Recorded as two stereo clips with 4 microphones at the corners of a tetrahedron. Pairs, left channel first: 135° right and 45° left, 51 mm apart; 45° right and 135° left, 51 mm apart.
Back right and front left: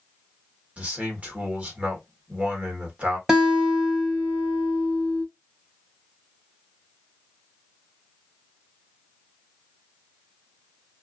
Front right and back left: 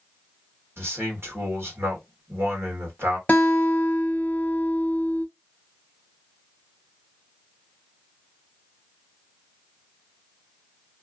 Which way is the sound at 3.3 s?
25° right.